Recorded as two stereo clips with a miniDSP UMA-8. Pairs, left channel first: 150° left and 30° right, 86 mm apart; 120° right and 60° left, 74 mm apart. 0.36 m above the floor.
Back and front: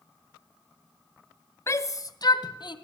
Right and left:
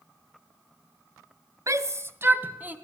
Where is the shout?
95° left, 1.8 m; by 2.8 s 130° left, 2.5 m.